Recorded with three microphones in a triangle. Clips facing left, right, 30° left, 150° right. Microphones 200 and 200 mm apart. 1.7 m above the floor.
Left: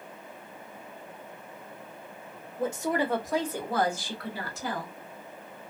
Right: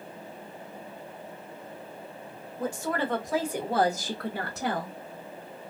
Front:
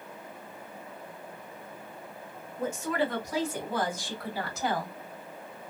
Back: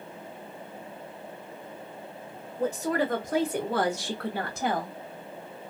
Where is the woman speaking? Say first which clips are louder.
Left 2 dB, back 3 dB; 155° left, 1.0 m; by 4.9 s 100° right, 1.0 m.